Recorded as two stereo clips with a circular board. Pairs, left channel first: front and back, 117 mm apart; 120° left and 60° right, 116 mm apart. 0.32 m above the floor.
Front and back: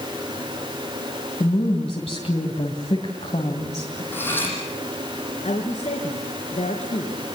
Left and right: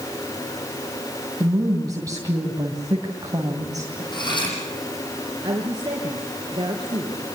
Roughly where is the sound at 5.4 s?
Ahead.